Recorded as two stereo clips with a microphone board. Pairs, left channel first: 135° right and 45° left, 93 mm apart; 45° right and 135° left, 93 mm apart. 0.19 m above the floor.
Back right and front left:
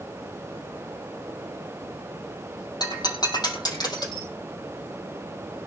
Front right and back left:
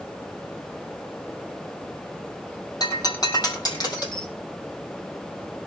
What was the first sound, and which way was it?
Breaking glass, 90° right.